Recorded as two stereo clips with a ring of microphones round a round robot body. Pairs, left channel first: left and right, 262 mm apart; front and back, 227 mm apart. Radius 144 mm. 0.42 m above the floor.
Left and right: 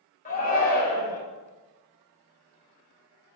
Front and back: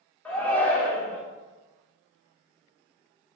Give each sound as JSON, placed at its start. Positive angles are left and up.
{"t": 0.2, "sound": "a shout", "azimuth_deg": 80, "distance_m": 1.1}